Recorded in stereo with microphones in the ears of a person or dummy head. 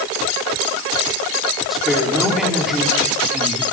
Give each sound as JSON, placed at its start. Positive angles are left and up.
{"t": 1.7, "sound": "a woman speaking", "side_deg": -5, "distance_m": 4.5}